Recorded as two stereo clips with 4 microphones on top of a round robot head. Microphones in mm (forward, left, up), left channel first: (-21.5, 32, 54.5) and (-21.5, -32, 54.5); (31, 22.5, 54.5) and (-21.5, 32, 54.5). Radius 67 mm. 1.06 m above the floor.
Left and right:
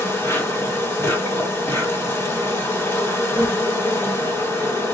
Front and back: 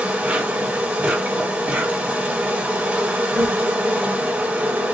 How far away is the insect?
About 1.4 m.